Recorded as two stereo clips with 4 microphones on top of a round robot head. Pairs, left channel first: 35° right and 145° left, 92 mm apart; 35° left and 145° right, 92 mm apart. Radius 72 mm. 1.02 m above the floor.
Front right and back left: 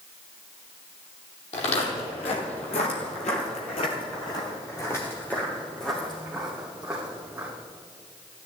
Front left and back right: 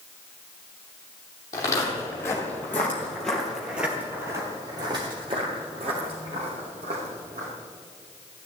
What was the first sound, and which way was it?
Footsteps, 20° right.